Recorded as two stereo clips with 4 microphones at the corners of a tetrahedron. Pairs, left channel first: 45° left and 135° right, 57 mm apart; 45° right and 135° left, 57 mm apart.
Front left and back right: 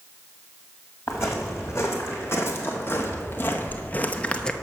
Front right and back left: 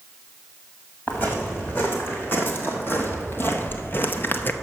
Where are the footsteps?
5° left, 2 m; by 4.5 s 25° right, 0.5 m.